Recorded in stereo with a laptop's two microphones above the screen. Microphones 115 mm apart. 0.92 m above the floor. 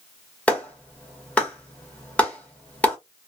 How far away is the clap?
About 1.0 m.